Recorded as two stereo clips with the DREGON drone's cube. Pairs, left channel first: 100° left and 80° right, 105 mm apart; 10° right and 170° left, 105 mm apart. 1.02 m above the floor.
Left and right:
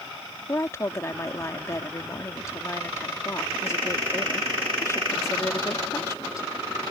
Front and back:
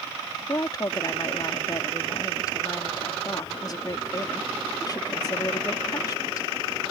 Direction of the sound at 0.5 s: 40° left.